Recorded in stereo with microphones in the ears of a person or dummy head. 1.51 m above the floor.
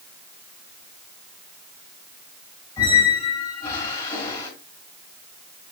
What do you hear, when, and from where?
2.8 s a squeak: 20° left (ahead or behind), 4 m